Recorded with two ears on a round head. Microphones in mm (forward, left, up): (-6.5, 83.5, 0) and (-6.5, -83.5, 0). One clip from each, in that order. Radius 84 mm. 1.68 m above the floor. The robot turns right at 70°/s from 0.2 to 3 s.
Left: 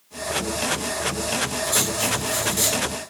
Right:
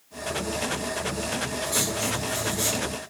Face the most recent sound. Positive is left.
turn(degrees=100)